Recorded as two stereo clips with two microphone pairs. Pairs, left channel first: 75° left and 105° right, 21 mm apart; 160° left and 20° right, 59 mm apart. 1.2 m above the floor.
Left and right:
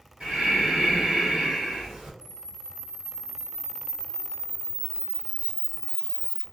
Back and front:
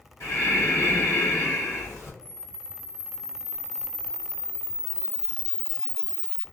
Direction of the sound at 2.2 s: 120° right.